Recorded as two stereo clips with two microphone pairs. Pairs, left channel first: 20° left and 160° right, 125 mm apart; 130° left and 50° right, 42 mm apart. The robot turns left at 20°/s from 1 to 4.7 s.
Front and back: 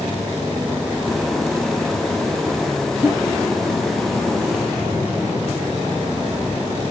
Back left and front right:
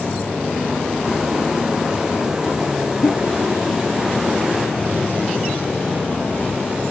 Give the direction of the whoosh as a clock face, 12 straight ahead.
8 o'clock.